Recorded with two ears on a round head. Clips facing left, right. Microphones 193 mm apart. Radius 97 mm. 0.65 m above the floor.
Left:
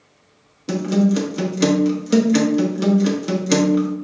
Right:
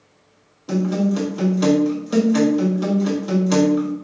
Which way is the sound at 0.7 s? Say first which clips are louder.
Left 2 dB; 30° left (ahead or behind).